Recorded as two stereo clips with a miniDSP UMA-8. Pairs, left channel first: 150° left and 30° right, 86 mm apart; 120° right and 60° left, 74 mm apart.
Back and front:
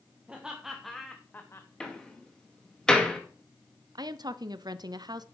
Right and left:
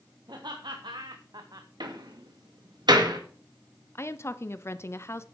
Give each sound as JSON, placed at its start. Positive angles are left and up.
{"t": 0.3, "sound": "laughter", "azimuth_deg": 45, "distance_m": 1.6}
{"t": 1.8, "sound": "a door slam", "azimuth_deg": 70, "distance_m": 2.0}
{"t": 4.0, "sound": "a woman speaking", "azimuth_deg": -65, "distance_m": 0.6}